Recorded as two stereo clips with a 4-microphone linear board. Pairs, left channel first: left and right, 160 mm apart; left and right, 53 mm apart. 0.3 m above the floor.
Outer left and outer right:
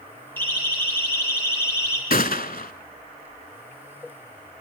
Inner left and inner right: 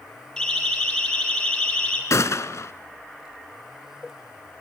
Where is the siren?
15° left (ahead or behind), 8.5 m; by 2.0 s 20° left (ahead or behind), 7.5 m.